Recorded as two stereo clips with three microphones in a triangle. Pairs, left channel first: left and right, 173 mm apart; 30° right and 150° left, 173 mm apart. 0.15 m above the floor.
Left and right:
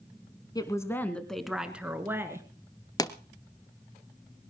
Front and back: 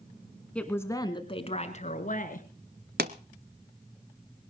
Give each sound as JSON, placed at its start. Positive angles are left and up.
{"t": 0.6, "sound": "a woman speaking", "azimuth_deg": 50, "distance_m": 1.3}
{"t": 3.0, "sound": "a pop", "azimuth_deg": 155, "distance_m": 0.7}